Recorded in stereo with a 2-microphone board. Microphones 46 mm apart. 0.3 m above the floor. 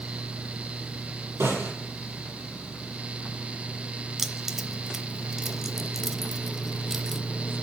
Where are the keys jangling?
10° right (ahead or behind), 0.7 m.